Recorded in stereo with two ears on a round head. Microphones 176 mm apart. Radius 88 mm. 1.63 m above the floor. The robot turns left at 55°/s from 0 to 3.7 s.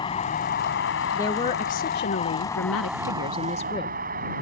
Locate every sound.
0.0 s a vehicle: 155° left; by 4.4 s 50° right
1.1 s a woman speaking: 165° left; by 4.0 s 25° left